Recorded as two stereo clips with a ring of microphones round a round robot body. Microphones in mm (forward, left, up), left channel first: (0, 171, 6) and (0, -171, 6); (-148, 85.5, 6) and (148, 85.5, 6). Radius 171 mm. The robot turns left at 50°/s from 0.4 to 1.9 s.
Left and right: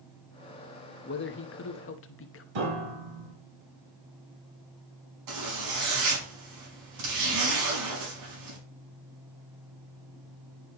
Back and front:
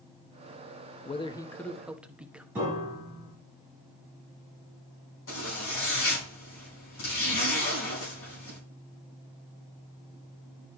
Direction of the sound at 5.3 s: 120° right.